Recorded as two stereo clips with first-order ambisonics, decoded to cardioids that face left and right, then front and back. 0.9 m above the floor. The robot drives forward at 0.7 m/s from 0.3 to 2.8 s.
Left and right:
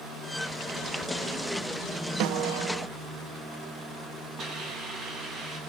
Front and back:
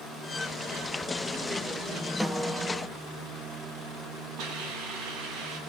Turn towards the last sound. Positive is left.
turn(degrees=-145)